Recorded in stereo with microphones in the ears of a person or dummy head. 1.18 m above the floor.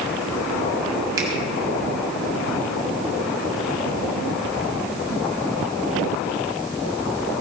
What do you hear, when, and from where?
1.2 s a finger snap: 25° right (ahead or behind), 6.5 m